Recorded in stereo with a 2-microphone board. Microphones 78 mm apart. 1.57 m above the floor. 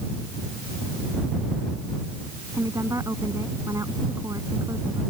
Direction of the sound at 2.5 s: 40° right (ahead or behind).